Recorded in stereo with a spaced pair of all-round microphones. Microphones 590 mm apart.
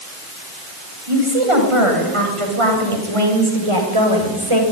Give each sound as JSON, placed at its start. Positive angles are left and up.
{"t": 1.1, "sound": "a woman speaking", "side_deg": -65, "distance_m": 9.5}